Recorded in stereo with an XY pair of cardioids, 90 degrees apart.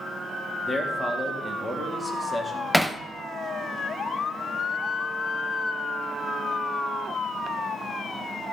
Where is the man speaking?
Straight ahead, 2 m.